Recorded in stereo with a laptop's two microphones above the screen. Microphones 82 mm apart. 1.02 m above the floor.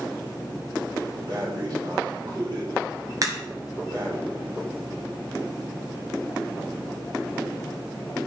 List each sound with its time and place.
1.3 s breathing: 60° right (ahead or behind), 3.5 m
3.2 s a crack: 45° right (ahead or behind), 1.7 m